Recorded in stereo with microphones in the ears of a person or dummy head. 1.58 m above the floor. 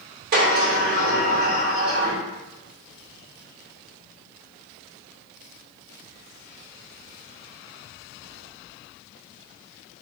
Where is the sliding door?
55° right (ahead or behind), 2.0 m.